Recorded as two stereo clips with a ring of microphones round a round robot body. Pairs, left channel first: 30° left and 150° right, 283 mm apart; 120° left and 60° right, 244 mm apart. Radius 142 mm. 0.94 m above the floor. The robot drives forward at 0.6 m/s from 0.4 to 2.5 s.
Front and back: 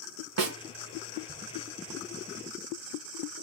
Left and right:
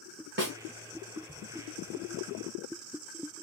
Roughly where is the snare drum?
Behind right.